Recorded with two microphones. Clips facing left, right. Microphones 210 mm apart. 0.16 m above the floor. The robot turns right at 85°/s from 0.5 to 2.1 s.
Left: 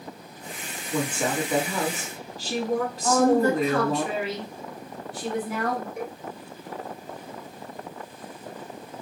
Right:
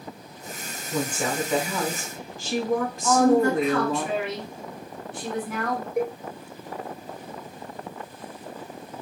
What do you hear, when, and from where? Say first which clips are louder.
0.9 s a woman speaking: left 1 dB; 30° right, 1.8 m; by 4.0 s 70° left, 1.8 m
3.0 s a woman speaking: right 1 dB; 35° left (ahead or behind), 1.6 m
6.0 s a cowbell: right 8 dB; 60° right (ahead or behind), 1.5 m